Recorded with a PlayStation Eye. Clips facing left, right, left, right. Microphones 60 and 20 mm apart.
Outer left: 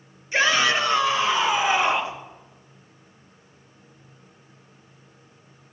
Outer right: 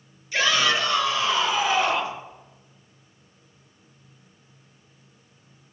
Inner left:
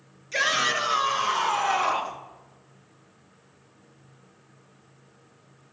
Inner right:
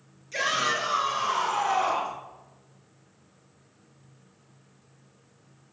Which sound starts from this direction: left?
A shout, at 0.3 s.